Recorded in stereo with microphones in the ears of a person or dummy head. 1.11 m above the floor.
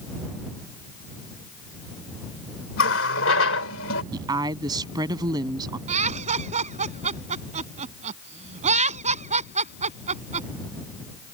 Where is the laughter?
40° right (ahead or behind).